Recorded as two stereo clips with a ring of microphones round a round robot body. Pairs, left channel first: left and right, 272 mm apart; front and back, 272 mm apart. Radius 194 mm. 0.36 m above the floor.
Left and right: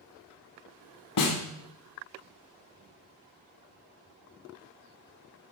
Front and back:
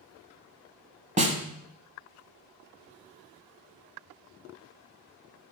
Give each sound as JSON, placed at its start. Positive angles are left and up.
{"t": 1.2, "sound": "a snare drum", "azimuth_deg": 115, "distance_m": 1.3}